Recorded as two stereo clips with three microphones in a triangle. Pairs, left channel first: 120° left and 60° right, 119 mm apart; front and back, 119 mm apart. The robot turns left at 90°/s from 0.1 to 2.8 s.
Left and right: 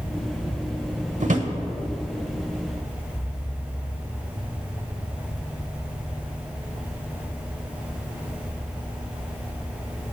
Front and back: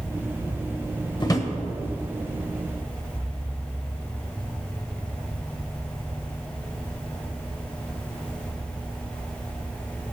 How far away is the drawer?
About 1.0 m.